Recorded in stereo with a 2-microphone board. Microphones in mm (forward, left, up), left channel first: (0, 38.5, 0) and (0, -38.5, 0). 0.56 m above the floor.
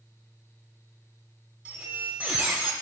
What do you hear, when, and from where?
1.6 s a squeak: 15° right (ahead or behind), 1.1 m